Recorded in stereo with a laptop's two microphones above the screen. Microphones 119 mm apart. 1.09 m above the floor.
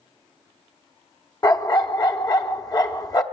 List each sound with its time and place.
1.4 s a dog barking: 35° left (ahead or behind), 0.7 m